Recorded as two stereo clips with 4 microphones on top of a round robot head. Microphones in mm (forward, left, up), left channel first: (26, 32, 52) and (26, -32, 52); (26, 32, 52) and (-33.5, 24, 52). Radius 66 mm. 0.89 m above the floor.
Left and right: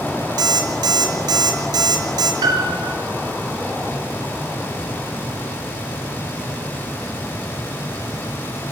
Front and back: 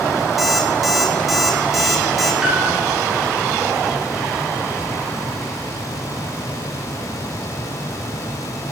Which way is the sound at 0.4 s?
85° right.